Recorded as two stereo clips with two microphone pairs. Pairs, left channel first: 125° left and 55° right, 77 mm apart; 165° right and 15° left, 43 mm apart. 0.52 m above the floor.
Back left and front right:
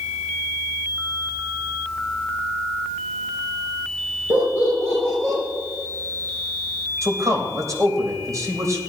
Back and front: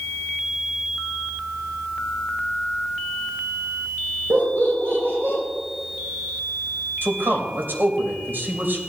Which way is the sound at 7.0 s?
15° right.